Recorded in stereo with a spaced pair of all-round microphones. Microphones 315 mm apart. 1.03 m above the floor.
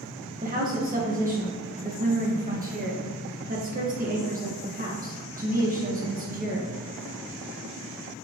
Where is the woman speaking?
25° right (ahead or behind), 0.7 m.